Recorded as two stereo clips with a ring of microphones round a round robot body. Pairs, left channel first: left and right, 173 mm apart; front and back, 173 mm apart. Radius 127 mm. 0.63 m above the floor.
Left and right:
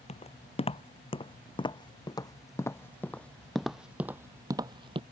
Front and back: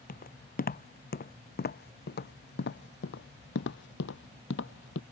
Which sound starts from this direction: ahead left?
Footsteps, at 0.1 s.